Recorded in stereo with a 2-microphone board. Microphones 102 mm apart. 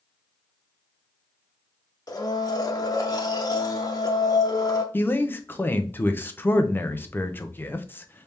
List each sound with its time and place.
2.1 s a blender: 40° left (ahead or behind), 0.7 m
4.9 s a man speaking: 20° left (ahead or behind), 0.5 m